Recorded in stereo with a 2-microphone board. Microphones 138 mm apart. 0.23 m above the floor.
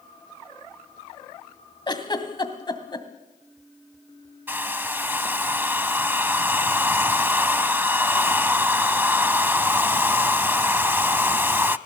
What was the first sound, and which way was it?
A giggle, 30° left (ahead or behind).